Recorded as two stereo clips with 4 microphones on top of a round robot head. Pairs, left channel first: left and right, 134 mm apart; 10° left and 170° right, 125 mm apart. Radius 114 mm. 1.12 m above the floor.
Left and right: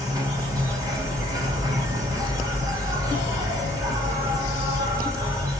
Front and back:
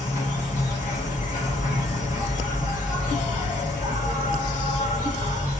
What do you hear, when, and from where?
0.0 s an insect: 25° right, 2 m